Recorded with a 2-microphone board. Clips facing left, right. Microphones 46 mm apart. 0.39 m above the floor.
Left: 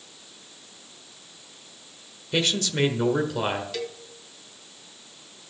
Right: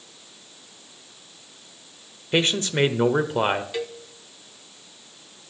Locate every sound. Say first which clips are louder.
2.3 s a man speaking: right 3 dB; 30° right (ahead or behind), 1.0 m
3.7 s a cowbell: right 3 dB; 20° right (ahead or behind), 1.0 m